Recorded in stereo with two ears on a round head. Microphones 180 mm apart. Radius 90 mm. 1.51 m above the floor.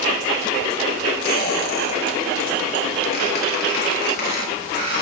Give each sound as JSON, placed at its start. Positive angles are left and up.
{"t": 1.2, "sound": "a squeak", "side_deg": 45, "distance_m": 3.0}